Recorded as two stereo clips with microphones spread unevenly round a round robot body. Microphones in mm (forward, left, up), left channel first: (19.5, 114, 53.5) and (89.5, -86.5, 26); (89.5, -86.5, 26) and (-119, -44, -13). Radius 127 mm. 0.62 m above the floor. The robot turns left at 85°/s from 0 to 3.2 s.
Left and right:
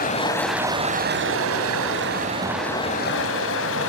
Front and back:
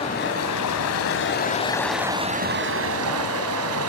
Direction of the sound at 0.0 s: 60° left.